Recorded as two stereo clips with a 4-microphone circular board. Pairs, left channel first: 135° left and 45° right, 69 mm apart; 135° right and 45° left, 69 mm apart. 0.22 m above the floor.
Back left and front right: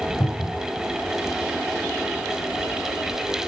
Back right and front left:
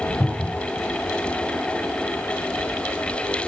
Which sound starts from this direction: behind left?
A cupboard door, at 0.2 s.